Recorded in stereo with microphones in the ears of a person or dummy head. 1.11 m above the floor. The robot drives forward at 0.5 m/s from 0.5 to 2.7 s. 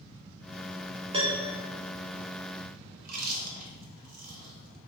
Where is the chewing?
45° right (ahead or behind), 1.0 m.